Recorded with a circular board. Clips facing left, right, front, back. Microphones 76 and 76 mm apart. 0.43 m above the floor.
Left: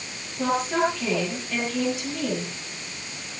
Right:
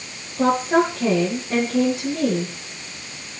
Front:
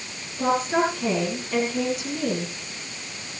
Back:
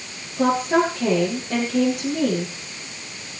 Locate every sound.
0.4 s a woman speaking: 150° right, 10 m